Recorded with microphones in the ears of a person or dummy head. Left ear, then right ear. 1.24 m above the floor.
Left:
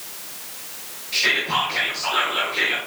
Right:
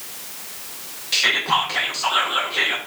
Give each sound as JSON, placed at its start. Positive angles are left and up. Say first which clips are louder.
{"t": 1.1, "sound": "whispering", "louder": "right 2 dB", "side_deg": -35, "distance_m": 0.6}